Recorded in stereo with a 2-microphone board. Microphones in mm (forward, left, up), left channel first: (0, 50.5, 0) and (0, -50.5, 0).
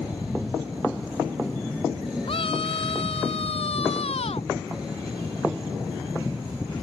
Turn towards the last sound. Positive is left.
turn(degrees=85)